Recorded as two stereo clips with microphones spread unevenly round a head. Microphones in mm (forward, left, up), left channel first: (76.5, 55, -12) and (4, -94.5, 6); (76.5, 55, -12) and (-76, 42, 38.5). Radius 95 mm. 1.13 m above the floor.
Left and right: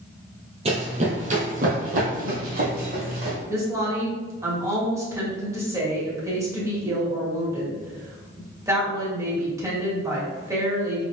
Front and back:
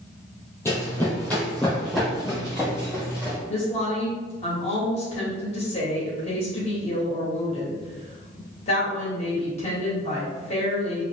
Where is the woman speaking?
45° right, 2 m.